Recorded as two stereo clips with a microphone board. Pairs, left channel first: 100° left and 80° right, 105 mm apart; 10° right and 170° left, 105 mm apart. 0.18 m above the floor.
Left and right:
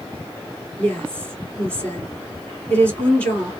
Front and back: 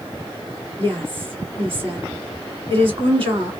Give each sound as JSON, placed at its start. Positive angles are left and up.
{"t": 0.8, "sound": "a woman speaking", "azimuth_deg": 170, "distance_m": 2.5}